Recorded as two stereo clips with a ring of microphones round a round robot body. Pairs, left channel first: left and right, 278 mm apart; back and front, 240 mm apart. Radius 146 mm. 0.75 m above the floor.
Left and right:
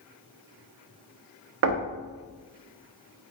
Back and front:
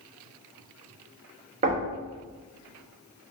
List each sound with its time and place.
1.6 s knocking: 60° right, 0.5 m